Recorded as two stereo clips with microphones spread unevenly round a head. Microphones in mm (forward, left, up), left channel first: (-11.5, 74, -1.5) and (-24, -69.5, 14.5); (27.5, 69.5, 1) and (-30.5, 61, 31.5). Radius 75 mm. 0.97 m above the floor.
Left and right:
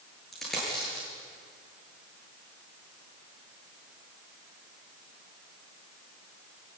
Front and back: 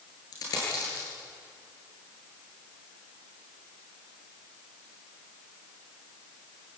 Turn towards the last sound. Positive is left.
turn(degrees=-5)